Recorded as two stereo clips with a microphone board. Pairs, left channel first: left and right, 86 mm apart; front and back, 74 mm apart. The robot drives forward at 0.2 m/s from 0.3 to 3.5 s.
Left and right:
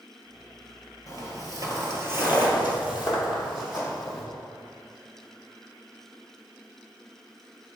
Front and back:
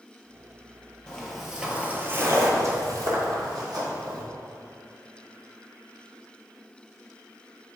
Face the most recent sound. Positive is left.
turn(degrees=180)